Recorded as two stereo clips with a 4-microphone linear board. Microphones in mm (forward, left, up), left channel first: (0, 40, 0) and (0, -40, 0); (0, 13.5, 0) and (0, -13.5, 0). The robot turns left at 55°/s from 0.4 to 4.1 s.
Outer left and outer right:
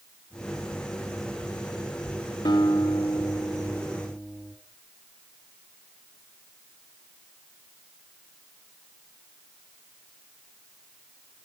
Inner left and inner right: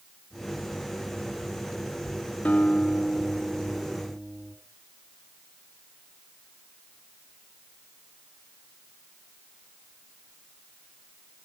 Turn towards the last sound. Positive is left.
turn(degrees=25)